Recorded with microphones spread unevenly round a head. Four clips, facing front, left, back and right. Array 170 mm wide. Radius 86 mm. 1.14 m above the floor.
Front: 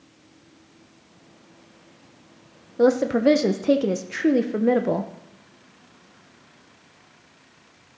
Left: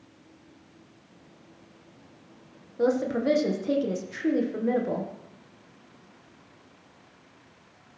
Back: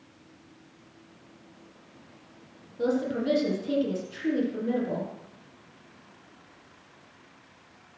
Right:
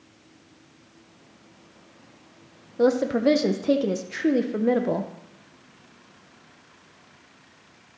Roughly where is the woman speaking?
Ahead right.